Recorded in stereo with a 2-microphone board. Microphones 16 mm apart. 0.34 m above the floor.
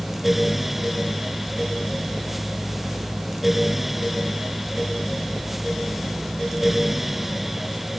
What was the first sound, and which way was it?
Only background noise.